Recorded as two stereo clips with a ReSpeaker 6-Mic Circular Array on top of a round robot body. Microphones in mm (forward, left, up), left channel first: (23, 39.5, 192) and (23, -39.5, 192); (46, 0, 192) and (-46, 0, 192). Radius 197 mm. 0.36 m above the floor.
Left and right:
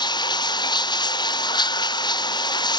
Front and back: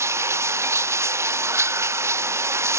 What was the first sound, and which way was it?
Running water, 120° left.